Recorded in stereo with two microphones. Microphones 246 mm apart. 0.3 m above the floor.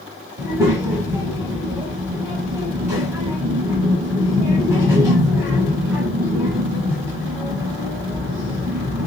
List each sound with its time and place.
0.4 s a child speaking: 10° right (ahead or behind), 1.3 m